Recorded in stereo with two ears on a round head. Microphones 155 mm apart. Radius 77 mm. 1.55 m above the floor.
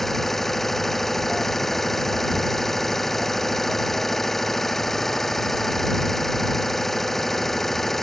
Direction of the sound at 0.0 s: Centre (ahead or behind).